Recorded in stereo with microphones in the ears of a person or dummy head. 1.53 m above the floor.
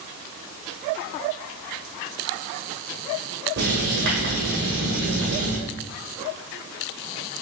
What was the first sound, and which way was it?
Writing, 50° right (ahead or behind).